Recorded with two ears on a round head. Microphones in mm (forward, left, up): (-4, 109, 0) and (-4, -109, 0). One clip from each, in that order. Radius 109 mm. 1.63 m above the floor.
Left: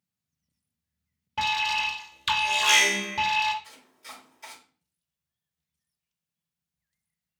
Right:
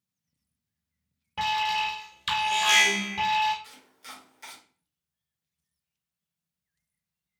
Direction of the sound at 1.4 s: 10° left (ahead or behind).